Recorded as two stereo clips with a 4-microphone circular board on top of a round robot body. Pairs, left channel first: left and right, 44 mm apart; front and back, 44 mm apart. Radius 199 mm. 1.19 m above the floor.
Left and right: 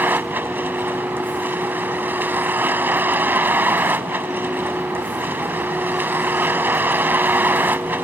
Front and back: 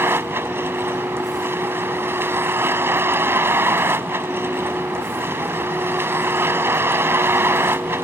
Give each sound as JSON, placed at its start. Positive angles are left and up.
{"t": 0.0, "sound": "a vehicle", "azimuth_deg": -140}